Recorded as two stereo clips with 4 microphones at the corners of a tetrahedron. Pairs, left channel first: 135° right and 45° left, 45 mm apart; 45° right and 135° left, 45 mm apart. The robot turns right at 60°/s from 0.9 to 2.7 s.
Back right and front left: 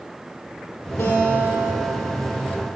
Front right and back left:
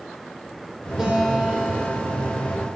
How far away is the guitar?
About 2.5 m.